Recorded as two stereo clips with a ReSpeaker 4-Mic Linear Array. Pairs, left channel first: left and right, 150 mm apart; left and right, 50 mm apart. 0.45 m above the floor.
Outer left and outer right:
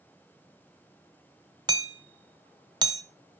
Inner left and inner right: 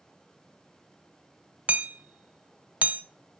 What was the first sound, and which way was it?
Hammering, 30° right (ahead or behind).